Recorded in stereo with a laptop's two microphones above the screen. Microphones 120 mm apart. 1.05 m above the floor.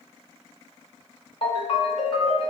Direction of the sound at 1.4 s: 45° left (ahead or behind).